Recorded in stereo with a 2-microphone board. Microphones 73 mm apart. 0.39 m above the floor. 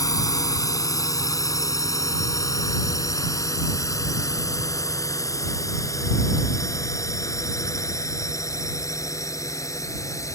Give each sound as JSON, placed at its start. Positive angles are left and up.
{"t": 0.0, "sound": "a drone", "side_deg": 55}